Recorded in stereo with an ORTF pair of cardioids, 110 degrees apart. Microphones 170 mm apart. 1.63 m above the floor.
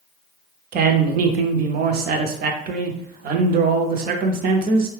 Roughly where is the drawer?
No drawer in this recording.